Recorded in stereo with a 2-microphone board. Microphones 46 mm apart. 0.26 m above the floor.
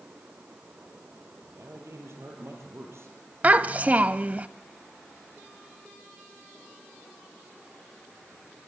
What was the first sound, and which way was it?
A man speaking, 75° right (ahead or behind).